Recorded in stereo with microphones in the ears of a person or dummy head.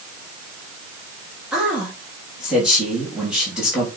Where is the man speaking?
5° right (ahead or behind), 3 m.